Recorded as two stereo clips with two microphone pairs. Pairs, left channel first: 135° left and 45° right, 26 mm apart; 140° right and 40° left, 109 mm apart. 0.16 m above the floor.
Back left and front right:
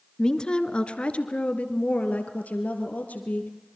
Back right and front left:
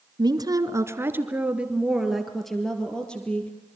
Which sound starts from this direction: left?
A woman speaking, at 0.2 s.